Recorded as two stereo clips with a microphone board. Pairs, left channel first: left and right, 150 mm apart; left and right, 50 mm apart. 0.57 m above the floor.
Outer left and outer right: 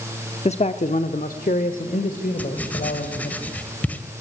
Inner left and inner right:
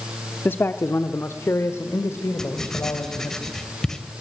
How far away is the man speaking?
About 0.8 m.